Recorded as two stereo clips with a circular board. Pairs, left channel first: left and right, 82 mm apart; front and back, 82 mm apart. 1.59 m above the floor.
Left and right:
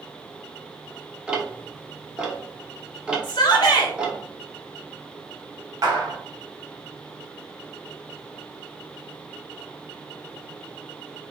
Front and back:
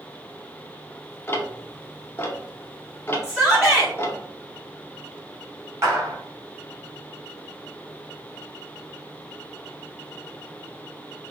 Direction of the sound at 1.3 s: 25° right.